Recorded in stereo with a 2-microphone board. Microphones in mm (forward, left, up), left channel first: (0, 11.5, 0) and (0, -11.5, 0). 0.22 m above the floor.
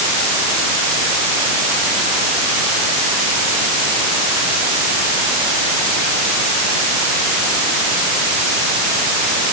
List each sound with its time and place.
Only background noise.